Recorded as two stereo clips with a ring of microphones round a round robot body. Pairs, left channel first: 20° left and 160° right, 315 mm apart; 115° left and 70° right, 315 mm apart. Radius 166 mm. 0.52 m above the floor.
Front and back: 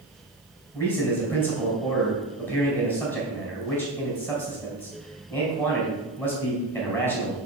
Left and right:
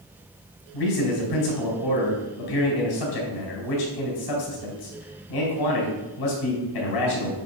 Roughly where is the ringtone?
I don't hear a ringtone.